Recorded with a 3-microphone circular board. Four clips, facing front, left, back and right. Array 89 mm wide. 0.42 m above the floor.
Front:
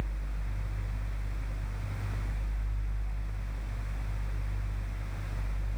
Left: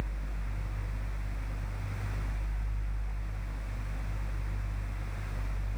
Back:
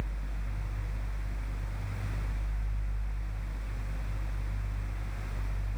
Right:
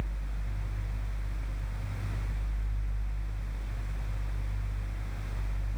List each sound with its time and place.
Only background noise.